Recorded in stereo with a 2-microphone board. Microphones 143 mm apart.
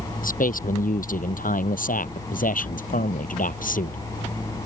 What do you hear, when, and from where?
0.2 s a man speaking: 75° left (ahead or behind); by 4.0 s 70° left (ahead or behind)